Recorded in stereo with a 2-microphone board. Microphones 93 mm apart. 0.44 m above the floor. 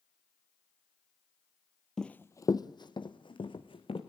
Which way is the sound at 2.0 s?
5° left (ahead or behind).